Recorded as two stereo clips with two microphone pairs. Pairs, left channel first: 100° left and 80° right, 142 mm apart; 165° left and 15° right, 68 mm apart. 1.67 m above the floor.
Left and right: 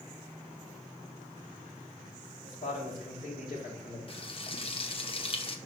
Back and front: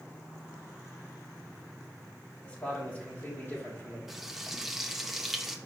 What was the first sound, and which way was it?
A man speaking, 90° left.